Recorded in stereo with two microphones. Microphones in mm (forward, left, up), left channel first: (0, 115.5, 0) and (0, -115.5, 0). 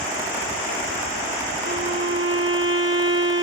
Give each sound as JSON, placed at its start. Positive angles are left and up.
{"t": 1.7, "sound": "a violin", "side_deg": -55}